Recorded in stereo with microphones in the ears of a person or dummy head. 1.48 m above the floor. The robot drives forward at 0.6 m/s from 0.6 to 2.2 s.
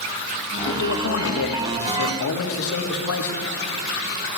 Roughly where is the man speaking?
Left.